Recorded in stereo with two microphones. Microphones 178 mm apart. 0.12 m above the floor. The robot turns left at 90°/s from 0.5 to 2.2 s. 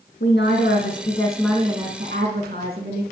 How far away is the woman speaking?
About 5 m.